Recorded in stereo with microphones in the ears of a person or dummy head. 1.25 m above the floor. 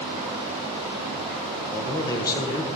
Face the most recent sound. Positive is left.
turn(degrees=20)  # may be behind; listen again after turning